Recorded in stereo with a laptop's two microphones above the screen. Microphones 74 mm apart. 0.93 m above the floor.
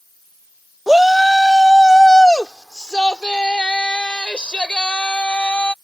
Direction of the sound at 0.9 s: 5° right (ahead or behind).